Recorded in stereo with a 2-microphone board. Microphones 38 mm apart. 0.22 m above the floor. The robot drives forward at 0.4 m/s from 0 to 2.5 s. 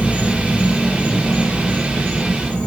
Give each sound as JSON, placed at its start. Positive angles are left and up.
{"t": 0.0, "sound": "an insect", "side_deg": 45, "distance_m": 1.0}